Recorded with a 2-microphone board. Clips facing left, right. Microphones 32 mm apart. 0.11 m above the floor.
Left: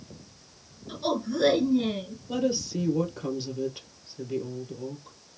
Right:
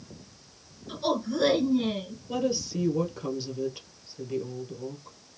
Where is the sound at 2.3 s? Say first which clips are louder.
Left 1 dB; centre (ahead or behind), 1.9 m.